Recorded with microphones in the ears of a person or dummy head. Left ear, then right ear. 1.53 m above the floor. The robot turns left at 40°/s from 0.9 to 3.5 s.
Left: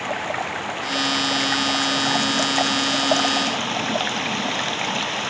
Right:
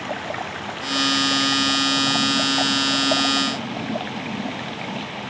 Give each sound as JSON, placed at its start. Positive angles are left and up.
{"t": 0.0, "sound": "running water", "azimuth_deg": 155}